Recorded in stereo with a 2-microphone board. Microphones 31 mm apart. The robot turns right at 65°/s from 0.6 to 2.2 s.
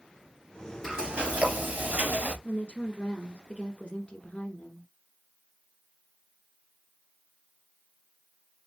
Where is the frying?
165° right, 2.5 m; by 2.3 s 80° right, 2.5 m.